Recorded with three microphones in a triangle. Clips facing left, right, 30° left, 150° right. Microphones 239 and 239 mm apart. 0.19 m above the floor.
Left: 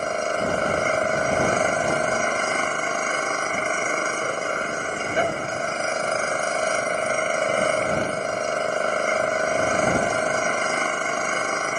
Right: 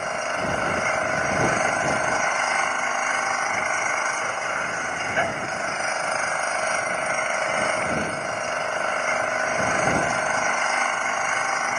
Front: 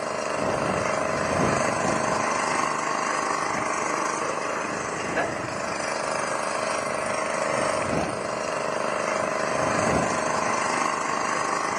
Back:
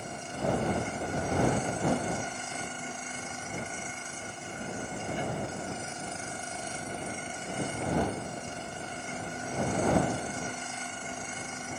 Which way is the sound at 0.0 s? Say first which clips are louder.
Left 4 dB, front 7 dB; 40° left.